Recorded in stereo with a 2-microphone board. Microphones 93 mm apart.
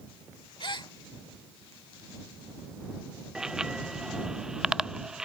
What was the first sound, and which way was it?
A gasp, 55° left (ahead or behind).